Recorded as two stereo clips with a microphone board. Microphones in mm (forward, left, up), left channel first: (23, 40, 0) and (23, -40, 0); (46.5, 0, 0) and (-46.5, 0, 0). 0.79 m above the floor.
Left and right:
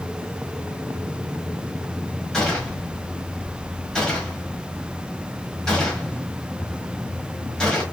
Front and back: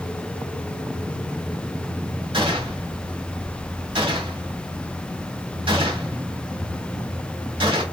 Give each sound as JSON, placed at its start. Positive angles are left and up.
{"t": 2.3, "sound": "a gunshot", "azimuth_deg": 170, "distance_m": 1.1}